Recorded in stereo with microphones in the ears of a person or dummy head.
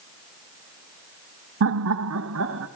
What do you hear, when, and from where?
1.6 s laughter: 70° right (ahead or behind), 0.8 m; by 2.7 s 65° right (ahead or behind), 1.6 m